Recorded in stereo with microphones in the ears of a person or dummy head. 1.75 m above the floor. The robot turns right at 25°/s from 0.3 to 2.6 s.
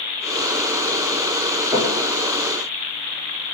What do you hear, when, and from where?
1.7 s knocking: 10° right (ahead or behind), 1.5 m; by 2.0 s 5° right (ahead or behind), 1.5 m